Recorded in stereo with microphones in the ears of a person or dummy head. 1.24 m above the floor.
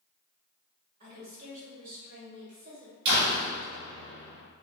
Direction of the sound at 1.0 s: 50° right (ahead or behind).